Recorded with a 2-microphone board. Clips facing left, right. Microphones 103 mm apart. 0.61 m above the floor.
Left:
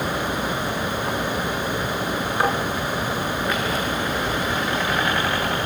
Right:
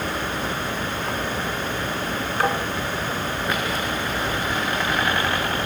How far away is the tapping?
About 3 m.